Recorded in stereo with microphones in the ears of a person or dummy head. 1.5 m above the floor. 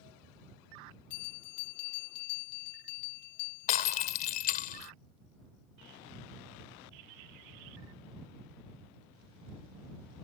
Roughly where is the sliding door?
I don't hear a sliding door.